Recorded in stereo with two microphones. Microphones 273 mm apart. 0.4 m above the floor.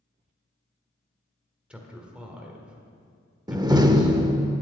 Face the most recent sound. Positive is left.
turn(degrees=-15)  # may be behind; listen again after turning